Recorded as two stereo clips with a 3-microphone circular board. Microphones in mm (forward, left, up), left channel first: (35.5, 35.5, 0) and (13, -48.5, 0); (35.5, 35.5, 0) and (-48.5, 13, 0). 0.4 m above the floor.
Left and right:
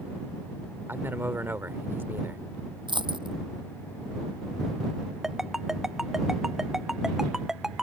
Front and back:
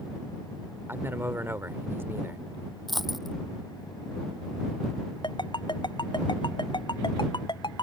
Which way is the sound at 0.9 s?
140° right.